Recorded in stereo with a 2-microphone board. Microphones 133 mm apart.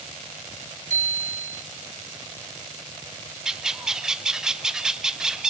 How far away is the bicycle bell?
About 3.5 m.